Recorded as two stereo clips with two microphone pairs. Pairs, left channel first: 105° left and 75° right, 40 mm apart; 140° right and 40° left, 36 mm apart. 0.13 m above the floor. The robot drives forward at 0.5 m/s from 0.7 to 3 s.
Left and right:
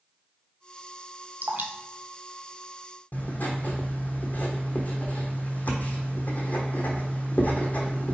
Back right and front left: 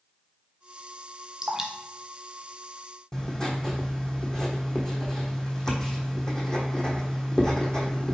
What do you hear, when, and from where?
1.4 s dripping: 40° right, 0.7 m; by 1.7 s 45° right, 0.6 m
3.1 s writing: 150° left, 1.1 m